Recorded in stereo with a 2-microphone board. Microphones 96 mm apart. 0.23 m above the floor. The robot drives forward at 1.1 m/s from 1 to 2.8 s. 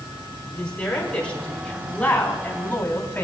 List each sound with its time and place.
0.5 s a woman speaking: 15° left (ahead or behind), 3 m; by 3.2 s 25° left (ahead or behind), 1.8 m